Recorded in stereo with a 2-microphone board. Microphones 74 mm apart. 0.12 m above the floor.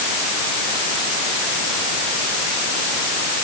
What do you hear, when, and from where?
Only background noise.